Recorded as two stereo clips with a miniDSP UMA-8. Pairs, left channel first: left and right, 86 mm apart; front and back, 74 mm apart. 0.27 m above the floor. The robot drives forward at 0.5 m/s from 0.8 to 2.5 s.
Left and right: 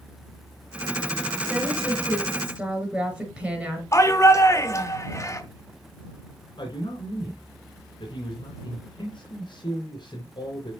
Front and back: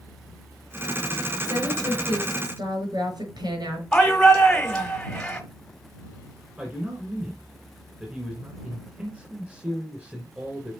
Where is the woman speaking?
165° right, 4 m.